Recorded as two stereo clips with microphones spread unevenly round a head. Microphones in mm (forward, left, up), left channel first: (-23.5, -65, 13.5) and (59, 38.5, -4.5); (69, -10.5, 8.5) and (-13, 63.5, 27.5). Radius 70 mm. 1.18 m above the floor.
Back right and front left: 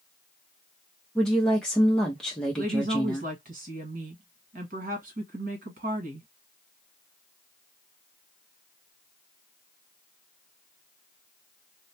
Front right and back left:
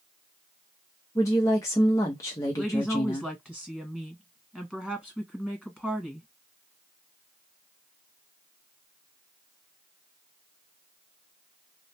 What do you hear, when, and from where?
1.1 s a woman speaking: 35° right, 0.7 m
2.6 s a woman speaking: 40° left, 1.4 m